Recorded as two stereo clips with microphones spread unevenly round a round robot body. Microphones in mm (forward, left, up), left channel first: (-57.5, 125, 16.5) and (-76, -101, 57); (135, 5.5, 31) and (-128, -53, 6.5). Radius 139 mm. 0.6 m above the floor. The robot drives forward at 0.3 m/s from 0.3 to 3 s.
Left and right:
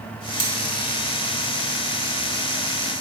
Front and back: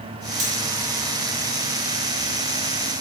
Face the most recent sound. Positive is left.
turn(degrees=-165)